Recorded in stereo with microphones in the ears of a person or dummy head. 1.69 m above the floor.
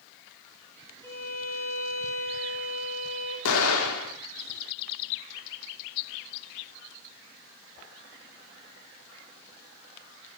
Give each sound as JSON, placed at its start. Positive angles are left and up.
{"t": 1.0, "sound": "a violin", "side_deg": 10, "distance_m": 8.5}
{"t": 3.5, "sound": "an explosion", "side_deg": 85, "distance_m": 4.0}